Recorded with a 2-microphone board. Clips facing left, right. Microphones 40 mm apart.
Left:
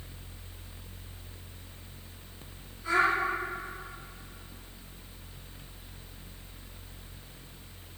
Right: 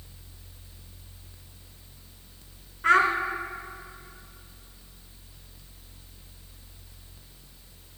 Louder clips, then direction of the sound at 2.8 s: Right 5 dB; 60° right (ahead or behind).